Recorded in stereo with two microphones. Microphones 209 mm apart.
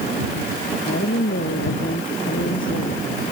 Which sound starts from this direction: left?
A woman speaking, at 0.8 s.